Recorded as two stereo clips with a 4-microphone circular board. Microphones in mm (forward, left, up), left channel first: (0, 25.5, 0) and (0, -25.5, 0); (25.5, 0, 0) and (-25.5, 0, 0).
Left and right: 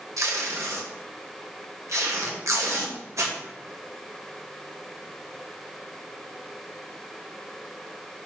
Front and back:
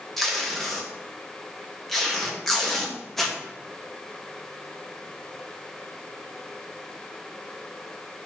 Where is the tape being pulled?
85° right, 0.7 m.